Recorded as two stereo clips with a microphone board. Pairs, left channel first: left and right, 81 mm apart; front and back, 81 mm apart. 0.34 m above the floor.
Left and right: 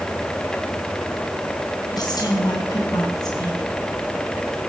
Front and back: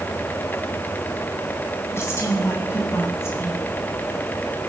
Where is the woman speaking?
55° left, 3.5 m.